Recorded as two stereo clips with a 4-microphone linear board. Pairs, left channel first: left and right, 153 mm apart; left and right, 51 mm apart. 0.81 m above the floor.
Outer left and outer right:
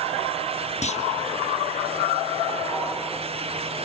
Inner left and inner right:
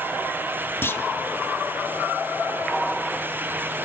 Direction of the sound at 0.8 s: 50° left (ahead or behind).